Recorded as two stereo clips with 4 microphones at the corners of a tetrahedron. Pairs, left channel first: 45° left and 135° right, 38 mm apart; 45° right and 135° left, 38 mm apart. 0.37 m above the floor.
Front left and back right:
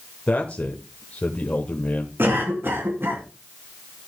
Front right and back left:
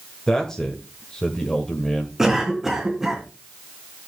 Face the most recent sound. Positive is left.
turn(degrees=-145)